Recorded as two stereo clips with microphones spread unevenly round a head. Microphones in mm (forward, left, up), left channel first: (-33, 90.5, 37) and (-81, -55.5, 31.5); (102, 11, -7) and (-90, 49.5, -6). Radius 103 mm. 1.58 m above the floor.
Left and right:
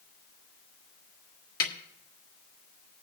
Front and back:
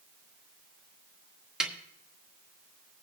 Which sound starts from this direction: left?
A snare drum, at 1.6 s.